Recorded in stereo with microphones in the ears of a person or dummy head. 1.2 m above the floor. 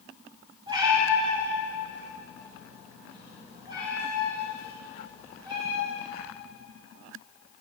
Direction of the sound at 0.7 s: 35° right (ahead or behind).